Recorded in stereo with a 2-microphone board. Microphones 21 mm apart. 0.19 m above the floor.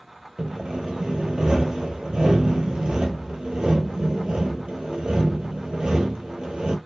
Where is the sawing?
50° right (ahead or behind), 0.8 m.